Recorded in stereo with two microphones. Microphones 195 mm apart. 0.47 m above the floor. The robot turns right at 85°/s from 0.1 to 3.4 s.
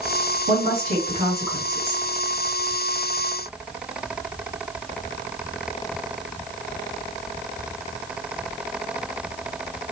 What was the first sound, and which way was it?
A woman speaking, 95° right.